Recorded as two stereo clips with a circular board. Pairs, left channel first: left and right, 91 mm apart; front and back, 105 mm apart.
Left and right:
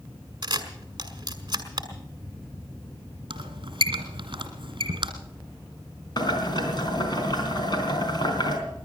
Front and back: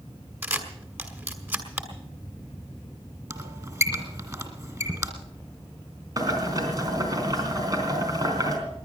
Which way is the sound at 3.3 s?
120° right.